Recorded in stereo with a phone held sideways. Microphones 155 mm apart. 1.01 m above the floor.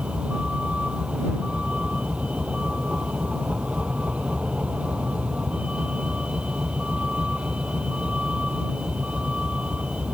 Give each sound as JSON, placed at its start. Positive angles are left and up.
{"t": 0.0, "sound": "a vehicle", "side_deg": -5}